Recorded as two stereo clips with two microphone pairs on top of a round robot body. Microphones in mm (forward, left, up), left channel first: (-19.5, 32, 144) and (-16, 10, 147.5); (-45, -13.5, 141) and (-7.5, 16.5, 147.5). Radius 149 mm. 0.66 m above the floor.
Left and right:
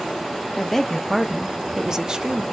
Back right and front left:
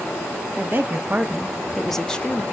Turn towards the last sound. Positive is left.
turn(degrees=-120)